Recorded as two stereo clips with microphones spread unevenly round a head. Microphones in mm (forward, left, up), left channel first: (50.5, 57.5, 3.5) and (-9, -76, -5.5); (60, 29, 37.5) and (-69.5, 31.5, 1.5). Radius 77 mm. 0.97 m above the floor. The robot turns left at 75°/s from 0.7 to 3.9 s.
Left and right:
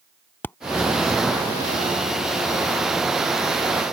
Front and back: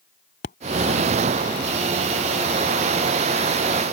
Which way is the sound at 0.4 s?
10° right.